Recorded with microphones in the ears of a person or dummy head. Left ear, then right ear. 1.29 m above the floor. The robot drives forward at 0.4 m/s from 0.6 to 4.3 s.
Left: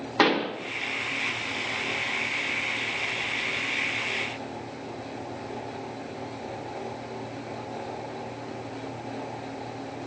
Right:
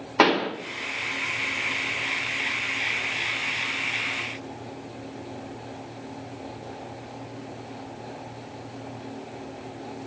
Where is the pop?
10° right (ahead or behind), 0.9 m.